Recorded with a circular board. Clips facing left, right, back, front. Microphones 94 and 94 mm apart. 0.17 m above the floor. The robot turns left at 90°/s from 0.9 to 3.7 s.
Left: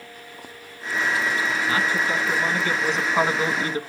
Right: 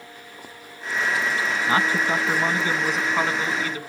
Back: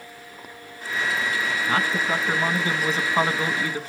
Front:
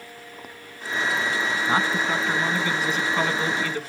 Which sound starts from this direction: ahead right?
A man speaking, at 1.7 s.